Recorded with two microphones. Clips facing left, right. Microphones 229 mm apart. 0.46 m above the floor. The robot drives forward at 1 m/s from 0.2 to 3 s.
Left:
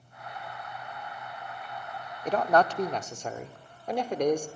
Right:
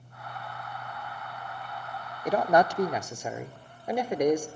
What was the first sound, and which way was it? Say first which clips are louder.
A man speaking: right 1 dB; 10° right (ahead or behind).